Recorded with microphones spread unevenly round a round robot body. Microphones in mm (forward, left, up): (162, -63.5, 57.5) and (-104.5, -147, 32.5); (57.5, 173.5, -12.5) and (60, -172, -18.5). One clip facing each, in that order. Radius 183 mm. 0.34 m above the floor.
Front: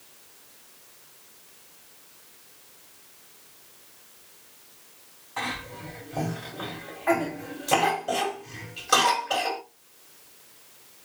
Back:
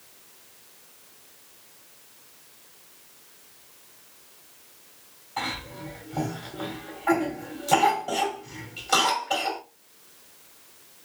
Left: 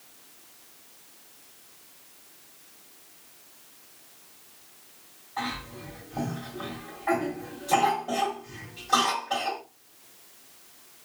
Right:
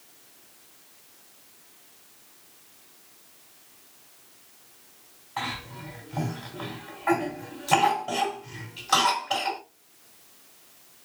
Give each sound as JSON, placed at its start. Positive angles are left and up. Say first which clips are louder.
{"t": 5.4, "sound": "a cough", "louder": "back 1 dB, left 2 dB", "azimuth_deg": -50, "distance_m": 1.8}